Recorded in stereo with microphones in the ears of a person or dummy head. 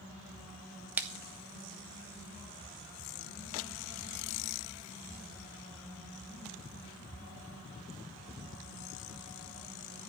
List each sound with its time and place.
1.0 s a splash: 10° right (ahead or behind), 0.5 m